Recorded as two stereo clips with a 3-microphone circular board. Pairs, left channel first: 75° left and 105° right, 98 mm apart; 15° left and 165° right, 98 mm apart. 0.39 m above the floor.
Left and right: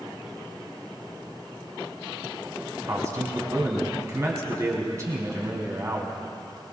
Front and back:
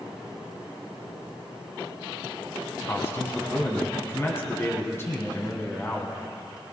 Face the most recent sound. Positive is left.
turn(degrees=-50)